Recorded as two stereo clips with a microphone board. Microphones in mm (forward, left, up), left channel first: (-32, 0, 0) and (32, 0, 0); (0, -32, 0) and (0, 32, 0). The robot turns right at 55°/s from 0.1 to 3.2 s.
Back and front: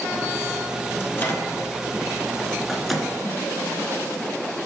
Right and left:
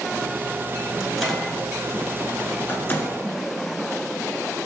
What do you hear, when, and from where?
1.0 s a microwave: 170° left, 1.2 m; by 3.1 s 75° right, 1.2 m